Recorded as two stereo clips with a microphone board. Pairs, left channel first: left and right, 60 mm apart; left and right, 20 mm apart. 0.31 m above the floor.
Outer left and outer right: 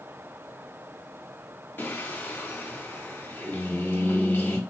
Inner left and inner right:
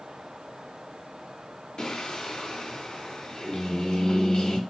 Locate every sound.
1.8 s singing: 35° left (ahead or behind), 0.7 m